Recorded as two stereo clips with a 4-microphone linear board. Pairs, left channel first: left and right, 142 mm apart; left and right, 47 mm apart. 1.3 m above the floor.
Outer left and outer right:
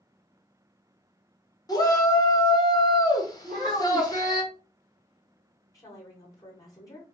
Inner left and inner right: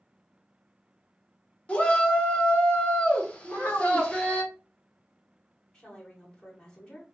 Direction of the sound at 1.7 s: 25° left (ahead or behind).